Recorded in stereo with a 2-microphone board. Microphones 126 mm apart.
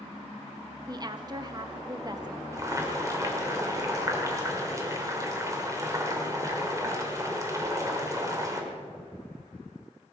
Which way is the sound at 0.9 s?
35° right (ahead or behind).